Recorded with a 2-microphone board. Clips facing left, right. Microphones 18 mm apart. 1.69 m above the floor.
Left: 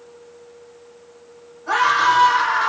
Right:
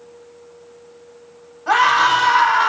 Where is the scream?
70° right (ahead or behind), 1.6 m.